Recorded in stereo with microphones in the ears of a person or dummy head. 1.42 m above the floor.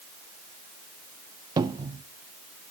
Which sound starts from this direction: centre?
A cupboard door, at 1.6 s.